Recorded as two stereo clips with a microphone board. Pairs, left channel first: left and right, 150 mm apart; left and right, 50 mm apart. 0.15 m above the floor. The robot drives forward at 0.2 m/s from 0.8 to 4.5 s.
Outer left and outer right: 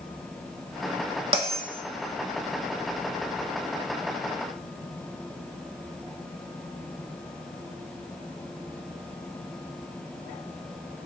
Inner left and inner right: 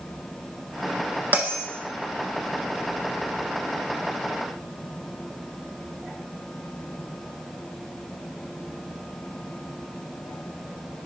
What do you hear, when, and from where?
1.3 s a bell: 35° right (ahead or behind), 0.6 m; by 1.6 s 40° right (ahead or behind), 0.6 m